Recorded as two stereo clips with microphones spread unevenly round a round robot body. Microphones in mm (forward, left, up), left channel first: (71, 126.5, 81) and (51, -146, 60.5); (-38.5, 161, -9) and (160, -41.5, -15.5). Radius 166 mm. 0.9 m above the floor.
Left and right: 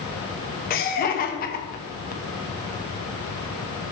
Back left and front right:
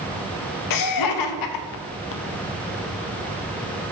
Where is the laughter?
145° left, 0.6 m.